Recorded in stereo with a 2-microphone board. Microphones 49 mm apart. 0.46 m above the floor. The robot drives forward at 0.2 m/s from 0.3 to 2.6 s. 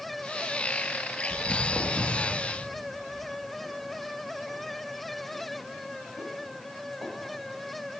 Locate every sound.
1.3 s footsteps: 15° left (ahead or behind), 0.7 m; by 7.1 s 60° right (ahead or behind), 3.5 m